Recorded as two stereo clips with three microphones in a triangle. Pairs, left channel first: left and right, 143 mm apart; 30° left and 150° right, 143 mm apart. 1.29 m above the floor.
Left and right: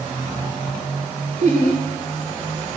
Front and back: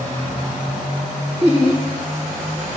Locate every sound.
1.4 s laughter: 80° left, 2.5 m